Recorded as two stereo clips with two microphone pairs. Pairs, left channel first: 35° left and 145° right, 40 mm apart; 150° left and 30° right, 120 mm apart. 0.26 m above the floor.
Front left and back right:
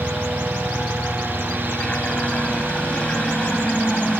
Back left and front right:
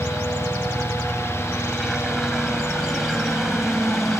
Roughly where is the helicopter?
Ahead left.